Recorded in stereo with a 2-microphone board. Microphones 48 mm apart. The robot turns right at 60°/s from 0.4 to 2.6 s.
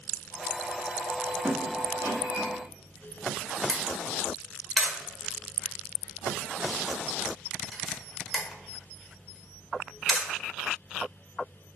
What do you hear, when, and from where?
1.4 s a squeak: 30° right (ahead or behind), 1.5 m; by 2.5 s 80° right, 1.5 m
3.7 s a camera shutter: centre (ahead or behind), 1.2 m